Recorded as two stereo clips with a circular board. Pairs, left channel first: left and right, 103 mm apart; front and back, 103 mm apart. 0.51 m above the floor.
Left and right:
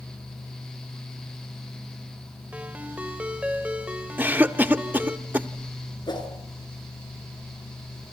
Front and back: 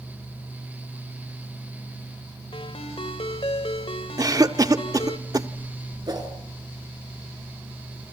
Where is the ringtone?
15° right, 1.6 m.